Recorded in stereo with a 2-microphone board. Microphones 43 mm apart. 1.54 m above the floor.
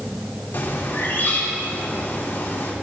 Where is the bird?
75° left (ahead or behind), 3 m.